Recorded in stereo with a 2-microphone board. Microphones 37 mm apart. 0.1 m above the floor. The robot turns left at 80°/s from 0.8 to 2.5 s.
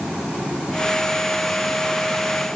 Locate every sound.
Only background noise.